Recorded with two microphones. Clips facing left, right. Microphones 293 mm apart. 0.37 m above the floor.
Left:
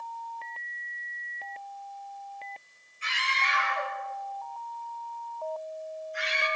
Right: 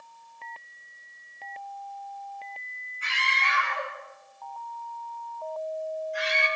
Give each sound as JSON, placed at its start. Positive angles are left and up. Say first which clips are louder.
{"t": 3.0, "sound": "a scream", "louder": "right 1 dB", "side_deg": -65, "distance_m": 7.0}